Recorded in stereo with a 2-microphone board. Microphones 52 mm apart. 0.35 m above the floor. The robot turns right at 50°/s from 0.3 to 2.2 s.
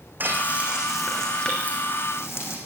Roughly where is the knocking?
No knocking in this recording.